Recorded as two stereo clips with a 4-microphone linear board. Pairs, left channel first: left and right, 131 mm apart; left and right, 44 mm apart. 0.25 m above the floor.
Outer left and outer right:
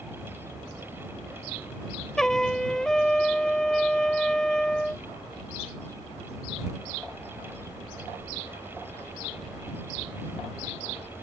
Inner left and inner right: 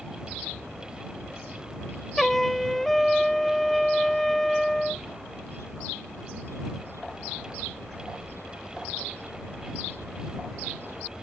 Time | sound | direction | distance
2.2 | a trumpet | 5° left (ahead or behind) | ?